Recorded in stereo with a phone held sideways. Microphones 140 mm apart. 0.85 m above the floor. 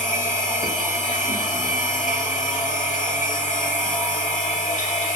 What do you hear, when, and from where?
0.0 s a machine running: 85° left, 2.5 m